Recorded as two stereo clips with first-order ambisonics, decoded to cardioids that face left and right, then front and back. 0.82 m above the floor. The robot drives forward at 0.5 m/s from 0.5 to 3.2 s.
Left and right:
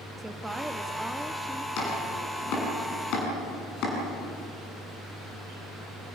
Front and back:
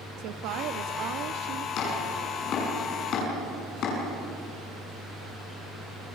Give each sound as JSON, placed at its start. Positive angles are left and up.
{"t": 0.2, "sound": "a woman speaking", "azimuth_deg": -175, "distance_m": 1.2}
{"t": 1.8, "sound": "chopping", "azimuth_deg": 45, "distance_m": 8.0}